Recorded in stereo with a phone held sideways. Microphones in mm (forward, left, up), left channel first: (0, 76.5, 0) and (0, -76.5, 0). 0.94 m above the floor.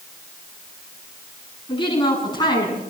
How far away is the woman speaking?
About 8 m.